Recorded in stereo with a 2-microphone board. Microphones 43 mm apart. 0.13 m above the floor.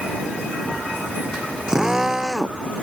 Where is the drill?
15° right (ahead or behind).